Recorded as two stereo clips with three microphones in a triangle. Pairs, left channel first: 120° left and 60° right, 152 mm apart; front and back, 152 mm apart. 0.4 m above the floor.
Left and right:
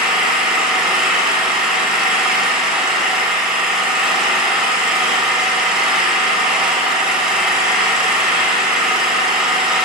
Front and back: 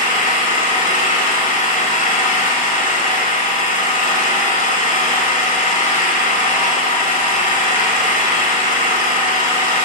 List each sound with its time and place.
0.0 s an engine running: 25° left, 1.2 m